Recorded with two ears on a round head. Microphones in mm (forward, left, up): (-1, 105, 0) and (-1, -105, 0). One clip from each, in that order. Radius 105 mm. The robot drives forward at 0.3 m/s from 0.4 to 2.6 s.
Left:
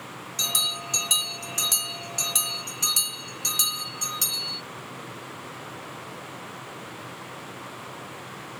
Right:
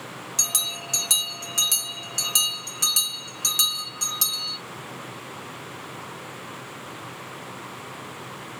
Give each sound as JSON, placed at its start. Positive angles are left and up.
{"t": 0.4, "sound": "a bell", "side_deg": -35, "distance_m": 2.5}